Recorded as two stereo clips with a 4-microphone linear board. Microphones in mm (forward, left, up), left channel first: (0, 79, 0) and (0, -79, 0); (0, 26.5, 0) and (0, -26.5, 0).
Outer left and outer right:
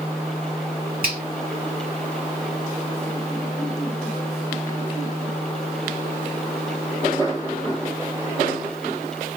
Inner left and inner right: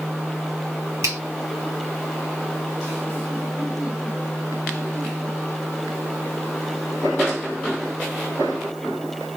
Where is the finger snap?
70° right (ahead or behind), 1.7 m.